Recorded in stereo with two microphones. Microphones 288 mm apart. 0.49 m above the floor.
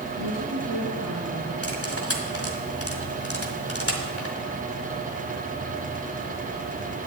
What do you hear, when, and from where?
0.1 s a woman speaking: 75° right (ahead or behind), 5 m
1.6 s cutlery clinking: 55° left (ahead or behind), 1.6 m